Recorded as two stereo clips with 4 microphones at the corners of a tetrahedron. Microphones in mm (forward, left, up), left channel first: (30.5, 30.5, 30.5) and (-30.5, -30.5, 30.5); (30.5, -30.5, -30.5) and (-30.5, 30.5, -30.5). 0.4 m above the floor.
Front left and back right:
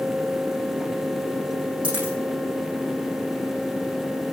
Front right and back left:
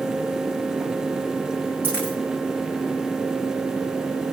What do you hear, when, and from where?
1.8 s a dropped coin: 155° right, 9.5 m